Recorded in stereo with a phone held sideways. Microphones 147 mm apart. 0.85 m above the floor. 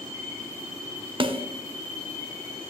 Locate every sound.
1.2 s a snare drum: 35° right (ahead or behind), 0.6 m